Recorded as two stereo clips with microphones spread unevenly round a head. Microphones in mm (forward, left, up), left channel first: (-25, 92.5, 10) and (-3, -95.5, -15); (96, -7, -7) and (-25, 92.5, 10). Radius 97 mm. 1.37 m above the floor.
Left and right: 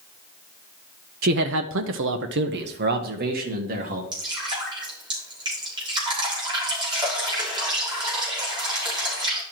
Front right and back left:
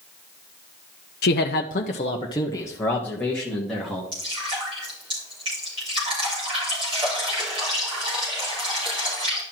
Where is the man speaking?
45° right, 0.7 m; by 4.0 s 130° right, 2.5 m.